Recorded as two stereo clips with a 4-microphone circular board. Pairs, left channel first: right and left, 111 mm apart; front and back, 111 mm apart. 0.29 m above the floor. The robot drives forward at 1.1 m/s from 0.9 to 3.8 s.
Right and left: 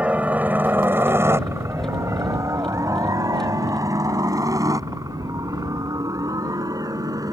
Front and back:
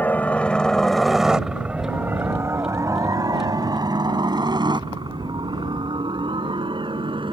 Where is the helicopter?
35° left; by 7.3 s 145° left.